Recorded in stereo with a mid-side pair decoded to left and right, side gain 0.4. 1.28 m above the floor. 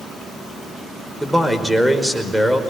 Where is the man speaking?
5° right, 5 m.